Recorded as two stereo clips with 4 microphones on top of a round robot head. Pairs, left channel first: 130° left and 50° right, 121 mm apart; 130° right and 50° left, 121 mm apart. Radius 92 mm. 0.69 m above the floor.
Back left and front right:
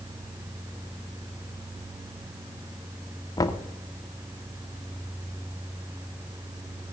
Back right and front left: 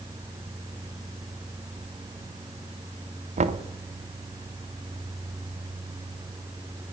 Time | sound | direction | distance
3.4 | knocking | 70° left | 1.1 m